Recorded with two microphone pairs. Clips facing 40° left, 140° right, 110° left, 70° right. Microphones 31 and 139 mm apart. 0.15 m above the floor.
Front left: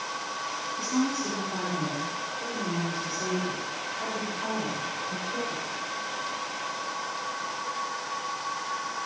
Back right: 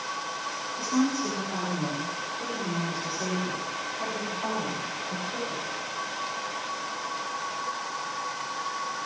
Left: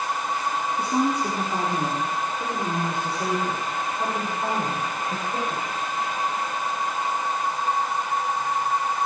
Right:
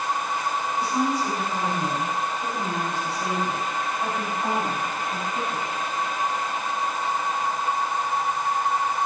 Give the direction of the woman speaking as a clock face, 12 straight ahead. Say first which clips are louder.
Back right 2 dB, left 1 dB; 7 o'clock.